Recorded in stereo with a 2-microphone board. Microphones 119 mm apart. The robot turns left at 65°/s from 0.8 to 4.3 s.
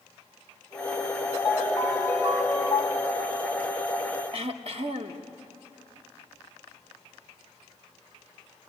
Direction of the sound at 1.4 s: 125° left.